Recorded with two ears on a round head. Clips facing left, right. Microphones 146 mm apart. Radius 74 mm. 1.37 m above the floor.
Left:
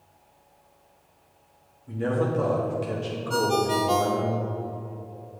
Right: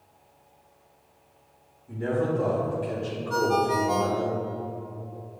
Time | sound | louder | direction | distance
1.9 | a man speaking | left 1 dB | 80° left | 2 m
3.3 | a ringtone | even | 35° left (ahead or behind) | 0.5 m